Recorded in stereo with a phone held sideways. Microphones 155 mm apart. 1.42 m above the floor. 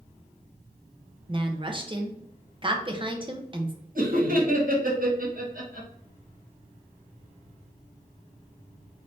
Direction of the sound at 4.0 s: 65° right (ahead or behind).